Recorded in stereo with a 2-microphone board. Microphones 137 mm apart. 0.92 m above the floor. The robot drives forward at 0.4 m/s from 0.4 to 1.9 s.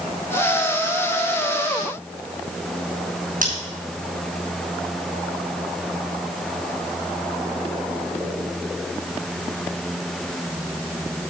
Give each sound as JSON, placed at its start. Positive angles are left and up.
{"t": 3.4, "sound": "scissors", "side_deg": -85, "distance_m": 5.5}